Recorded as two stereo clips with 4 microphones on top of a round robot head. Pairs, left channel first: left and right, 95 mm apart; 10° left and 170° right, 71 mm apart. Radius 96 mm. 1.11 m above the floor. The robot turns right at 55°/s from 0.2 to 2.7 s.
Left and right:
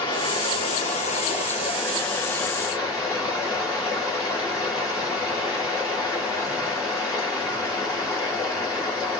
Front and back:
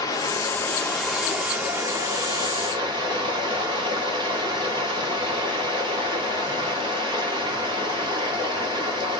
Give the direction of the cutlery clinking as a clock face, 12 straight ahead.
I don't hear cutlery clinking.